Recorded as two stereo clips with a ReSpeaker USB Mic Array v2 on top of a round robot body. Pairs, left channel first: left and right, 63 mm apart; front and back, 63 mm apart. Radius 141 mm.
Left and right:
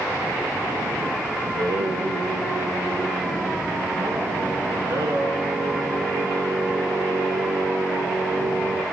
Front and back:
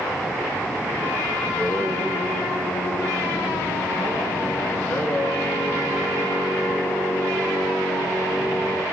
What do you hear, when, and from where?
1.4 s singing: 55° right, 2.5 m